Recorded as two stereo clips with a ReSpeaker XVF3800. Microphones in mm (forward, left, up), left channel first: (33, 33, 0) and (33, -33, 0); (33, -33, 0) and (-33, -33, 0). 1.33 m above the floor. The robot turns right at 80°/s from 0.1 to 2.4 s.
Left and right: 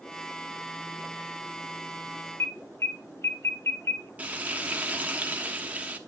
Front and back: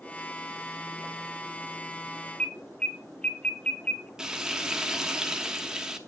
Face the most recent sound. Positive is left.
turn(degrees=-115)